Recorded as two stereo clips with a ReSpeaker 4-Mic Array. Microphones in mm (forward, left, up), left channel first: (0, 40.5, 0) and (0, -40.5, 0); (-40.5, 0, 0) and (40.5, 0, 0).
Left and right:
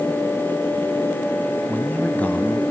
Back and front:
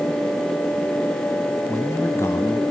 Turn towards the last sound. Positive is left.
turn(degrees=150)